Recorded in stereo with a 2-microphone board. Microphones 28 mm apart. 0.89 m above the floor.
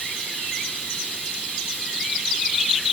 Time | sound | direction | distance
0.0 | running water | 60° left (ahead or behind) | 8.5 m